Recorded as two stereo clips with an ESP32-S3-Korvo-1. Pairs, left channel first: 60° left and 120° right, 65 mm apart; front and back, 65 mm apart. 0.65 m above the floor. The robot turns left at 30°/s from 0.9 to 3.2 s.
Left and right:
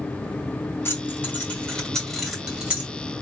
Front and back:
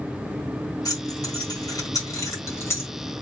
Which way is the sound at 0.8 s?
10° left.